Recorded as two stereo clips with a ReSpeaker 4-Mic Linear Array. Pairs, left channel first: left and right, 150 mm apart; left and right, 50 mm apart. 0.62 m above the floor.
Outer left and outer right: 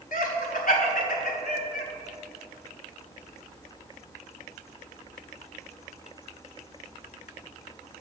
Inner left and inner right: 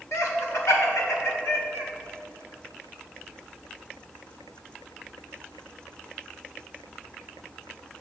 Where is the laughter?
70° left (ahead or behind), 2 m.